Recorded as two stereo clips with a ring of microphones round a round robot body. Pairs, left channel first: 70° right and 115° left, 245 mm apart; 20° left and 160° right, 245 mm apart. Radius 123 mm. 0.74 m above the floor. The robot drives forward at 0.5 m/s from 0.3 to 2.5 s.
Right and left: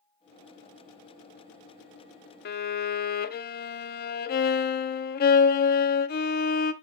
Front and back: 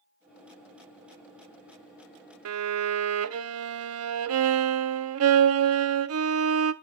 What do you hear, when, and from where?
2.5 s a violin: 120° right, 0.5 m; by 6.7 s 125° right, 0.5 m